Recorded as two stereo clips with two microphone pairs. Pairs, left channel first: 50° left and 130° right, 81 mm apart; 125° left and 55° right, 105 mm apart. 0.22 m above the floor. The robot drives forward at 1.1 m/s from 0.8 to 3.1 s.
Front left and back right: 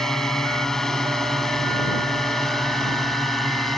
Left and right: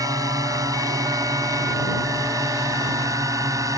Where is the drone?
35° right; by 3.8 s 40° right.